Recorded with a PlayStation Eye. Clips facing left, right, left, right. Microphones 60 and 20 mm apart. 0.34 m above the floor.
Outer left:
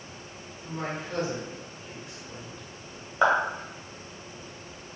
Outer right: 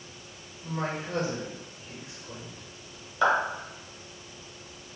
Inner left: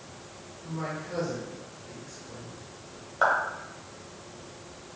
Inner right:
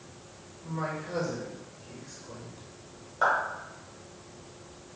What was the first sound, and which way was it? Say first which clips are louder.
A man speaking: outer right 2 dB, inner right 1 dB; 20° right (ahead or behind).